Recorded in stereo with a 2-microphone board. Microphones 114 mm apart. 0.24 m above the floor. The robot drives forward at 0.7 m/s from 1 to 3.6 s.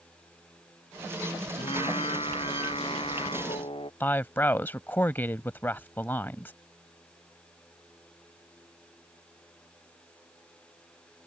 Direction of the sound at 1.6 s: 55° left (ahead or behind).